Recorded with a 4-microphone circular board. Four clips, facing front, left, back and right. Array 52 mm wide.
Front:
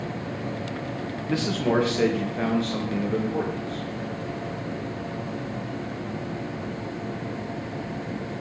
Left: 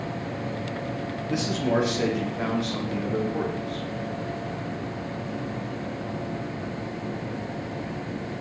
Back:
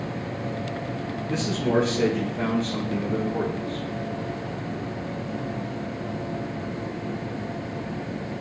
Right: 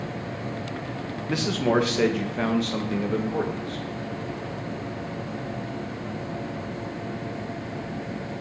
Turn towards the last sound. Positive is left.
turn(degrees=-80)